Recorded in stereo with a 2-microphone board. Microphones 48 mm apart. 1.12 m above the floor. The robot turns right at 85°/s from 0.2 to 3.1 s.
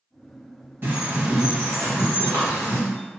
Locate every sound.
0.8 s a bird: 55° right, 1.5 m; by 2.8 s 115° left, 1.5 m